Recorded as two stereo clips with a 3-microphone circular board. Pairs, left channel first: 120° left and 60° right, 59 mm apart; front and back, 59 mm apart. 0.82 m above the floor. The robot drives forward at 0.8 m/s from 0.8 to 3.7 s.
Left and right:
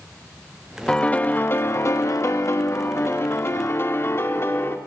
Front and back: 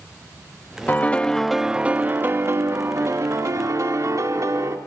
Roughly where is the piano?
Ahead left.